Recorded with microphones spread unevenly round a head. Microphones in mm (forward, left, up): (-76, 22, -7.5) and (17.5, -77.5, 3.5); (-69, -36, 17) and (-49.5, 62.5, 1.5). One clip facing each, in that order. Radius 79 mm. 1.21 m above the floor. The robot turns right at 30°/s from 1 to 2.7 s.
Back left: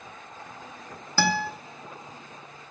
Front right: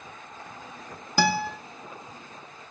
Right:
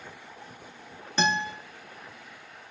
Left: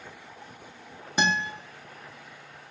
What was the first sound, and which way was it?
A guitar, 10° right.